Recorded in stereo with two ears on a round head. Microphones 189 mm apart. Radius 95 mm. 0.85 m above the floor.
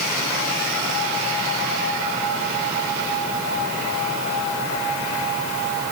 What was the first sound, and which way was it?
Only background noise.